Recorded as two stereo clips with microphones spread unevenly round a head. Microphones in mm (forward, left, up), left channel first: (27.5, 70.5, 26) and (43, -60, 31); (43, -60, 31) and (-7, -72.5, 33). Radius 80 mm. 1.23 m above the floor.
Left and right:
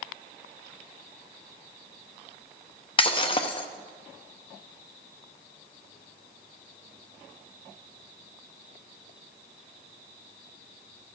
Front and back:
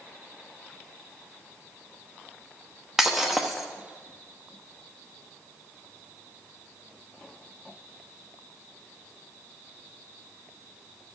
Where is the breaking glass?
115° left, 0.6 m.